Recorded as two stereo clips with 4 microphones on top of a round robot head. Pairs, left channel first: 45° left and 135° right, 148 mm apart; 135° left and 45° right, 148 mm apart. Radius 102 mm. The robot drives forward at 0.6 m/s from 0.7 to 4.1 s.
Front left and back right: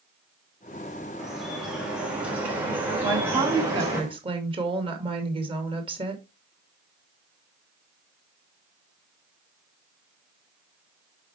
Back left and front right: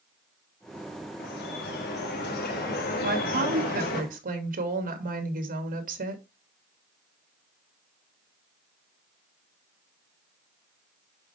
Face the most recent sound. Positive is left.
turn(degrees=-80)